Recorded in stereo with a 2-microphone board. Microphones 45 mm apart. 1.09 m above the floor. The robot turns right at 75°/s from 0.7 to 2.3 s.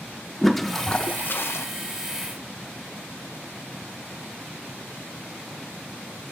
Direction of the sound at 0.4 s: 5° left.